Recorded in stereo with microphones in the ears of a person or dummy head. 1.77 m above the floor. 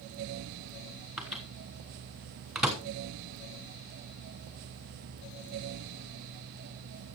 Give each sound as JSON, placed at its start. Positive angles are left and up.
{"t": 1.2, "sound": "a microwave", "side_deg": 0, "distance_m": 1.2}